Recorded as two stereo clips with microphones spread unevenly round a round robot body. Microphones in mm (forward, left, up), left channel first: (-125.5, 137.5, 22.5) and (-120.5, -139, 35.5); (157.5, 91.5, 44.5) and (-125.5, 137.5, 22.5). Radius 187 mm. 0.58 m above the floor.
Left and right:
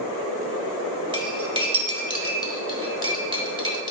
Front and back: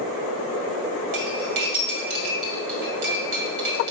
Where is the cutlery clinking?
165° right, 1.8 m.